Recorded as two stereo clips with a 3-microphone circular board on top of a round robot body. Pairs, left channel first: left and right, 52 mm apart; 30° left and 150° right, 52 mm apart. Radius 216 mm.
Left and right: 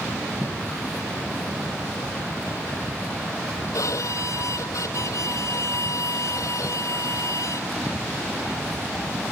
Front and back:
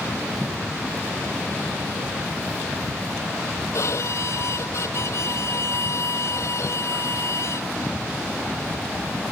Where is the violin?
65° left.